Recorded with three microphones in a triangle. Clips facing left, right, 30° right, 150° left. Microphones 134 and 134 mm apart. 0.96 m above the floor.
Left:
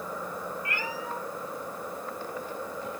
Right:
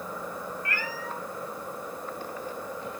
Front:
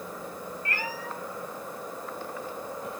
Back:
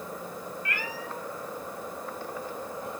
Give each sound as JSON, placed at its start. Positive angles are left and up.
{"t": 0.7, "sound": "a cat meowing", "azimuth_deg": 20, "distance_m": 0.9}